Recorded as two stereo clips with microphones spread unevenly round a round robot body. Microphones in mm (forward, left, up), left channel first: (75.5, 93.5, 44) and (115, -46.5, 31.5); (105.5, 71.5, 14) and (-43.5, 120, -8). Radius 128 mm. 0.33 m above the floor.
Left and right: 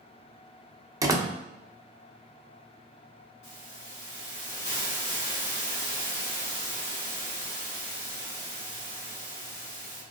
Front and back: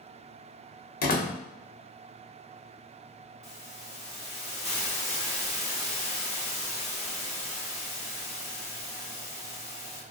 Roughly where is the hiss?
Left.